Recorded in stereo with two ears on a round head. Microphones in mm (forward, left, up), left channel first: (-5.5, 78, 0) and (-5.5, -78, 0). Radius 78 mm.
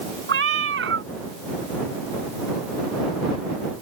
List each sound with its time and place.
0.3 s a cat meowing: 70° right (ahead or behind)